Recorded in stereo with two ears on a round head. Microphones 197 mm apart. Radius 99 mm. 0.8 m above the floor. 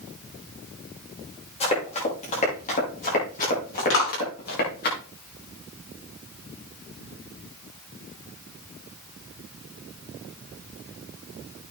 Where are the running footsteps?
30° left (ahead or behind), 9 m; by 4.9 s 50° left (ahead or behind), 7 m.